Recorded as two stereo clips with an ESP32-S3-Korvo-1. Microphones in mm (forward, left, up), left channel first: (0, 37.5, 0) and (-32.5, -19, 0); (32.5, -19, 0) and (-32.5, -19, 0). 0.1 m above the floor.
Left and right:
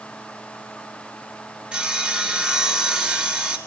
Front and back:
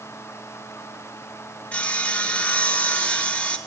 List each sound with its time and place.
1.7 s sawing: 55° right, 1.2 m